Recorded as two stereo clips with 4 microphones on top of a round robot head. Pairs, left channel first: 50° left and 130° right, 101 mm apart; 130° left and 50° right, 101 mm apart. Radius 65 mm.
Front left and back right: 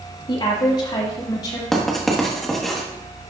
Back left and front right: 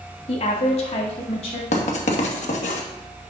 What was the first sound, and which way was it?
A woman speaking, 100° left.